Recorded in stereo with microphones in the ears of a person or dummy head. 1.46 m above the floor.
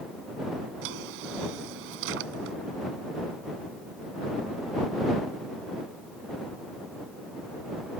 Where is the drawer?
65° right (ahead or behind).